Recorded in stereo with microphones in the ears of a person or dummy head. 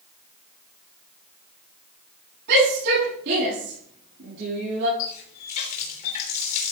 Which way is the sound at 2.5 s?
60° right (ahead or behind).